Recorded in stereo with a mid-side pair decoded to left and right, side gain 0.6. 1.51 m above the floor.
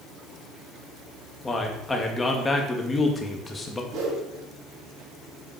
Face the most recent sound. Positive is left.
turn(degrees=-65)